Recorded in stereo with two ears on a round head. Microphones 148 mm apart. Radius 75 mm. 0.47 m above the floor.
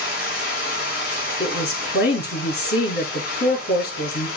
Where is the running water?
65° left (ahead or behind), 3.5 m.